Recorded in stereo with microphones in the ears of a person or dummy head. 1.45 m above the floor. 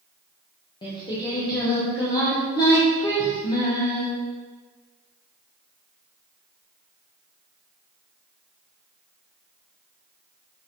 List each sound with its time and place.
0.8 s singing: 25° left (ahead or behind), 1.7 m